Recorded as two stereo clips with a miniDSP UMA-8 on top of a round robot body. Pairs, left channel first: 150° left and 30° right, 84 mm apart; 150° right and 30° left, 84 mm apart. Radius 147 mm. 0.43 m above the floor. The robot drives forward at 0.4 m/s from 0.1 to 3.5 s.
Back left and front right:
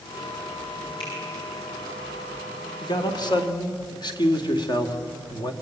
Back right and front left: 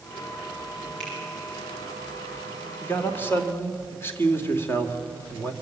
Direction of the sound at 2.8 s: 145° left.